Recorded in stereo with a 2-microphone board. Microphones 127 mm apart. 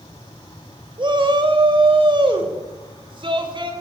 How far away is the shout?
About 1.2 m.